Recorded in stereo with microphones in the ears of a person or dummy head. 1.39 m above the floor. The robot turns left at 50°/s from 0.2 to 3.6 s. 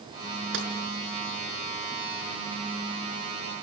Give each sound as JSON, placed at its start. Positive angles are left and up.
{"t": 0.5, "sound": "tapping", "side_deg": -65, "distance_m": 6.0}